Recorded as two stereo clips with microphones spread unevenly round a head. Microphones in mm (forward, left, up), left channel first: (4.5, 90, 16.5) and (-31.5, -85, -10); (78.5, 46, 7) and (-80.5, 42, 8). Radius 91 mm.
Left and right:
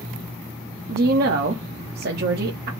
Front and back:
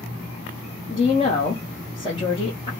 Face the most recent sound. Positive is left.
turn(degrees=-65)